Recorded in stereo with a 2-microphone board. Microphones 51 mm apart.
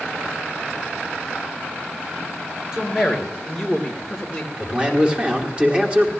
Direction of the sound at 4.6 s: 20° right (ahead or behind).